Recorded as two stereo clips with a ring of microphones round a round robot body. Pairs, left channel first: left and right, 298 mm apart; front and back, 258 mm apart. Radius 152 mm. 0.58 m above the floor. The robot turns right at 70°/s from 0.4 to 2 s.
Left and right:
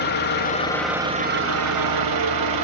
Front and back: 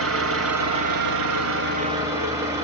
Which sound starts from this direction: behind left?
An engine running, at 0.0 s.